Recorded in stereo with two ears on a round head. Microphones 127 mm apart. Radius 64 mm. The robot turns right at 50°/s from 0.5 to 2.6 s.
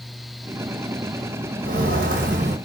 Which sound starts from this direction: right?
Footsteps, at 1.6 s.